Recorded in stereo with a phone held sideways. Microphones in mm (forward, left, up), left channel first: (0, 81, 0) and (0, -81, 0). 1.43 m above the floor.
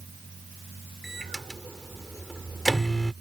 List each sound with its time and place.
1.0 s a microwave: centre (ahead or behind)